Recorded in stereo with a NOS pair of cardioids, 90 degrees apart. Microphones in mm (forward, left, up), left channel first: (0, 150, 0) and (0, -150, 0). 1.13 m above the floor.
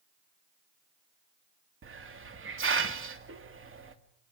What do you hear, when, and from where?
1.8 s a hiss: 40° right, 2.5 m